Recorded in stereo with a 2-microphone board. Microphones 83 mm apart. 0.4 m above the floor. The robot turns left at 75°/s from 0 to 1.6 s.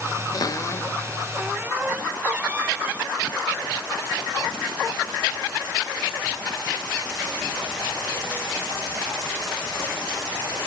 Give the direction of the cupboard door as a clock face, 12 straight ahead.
10 o'clock.